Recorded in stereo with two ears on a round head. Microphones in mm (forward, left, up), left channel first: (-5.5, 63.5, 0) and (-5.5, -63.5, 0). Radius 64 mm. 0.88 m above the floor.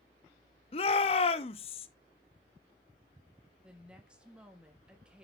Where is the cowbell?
I don't hear a cowbell.